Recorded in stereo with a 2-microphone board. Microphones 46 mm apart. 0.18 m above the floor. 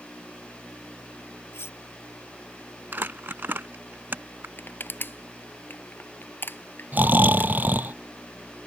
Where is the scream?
I don't hear a scream.